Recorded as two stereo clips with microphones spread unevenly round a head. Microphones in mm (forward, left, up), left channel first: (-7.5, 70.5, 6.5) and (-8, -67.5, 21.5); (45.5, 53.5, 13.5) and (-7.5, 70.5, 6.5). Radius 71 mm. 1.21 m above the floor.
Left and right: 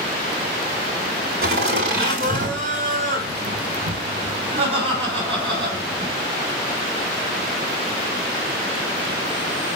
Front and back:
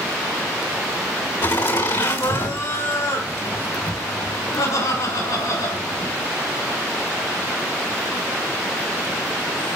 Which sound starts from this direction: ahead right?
Laughter, at 1.4 s.